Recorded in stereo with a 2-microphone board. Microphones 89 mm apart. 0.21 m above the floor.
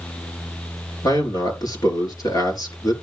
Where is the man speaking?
45° left (ahead or behind), 5 m.